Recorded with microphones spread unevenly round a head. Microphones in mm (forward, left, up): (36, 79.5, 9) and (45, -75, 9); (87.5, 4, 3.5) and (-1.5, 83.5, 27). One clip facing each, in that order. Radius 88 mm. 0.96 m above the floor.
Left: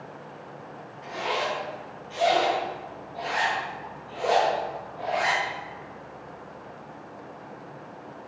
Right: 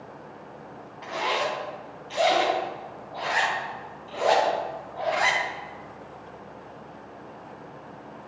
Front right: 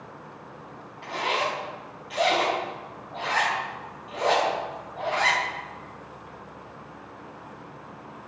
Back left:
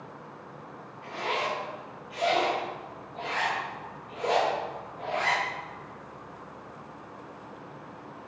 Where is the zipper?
75° right, 3.5 m.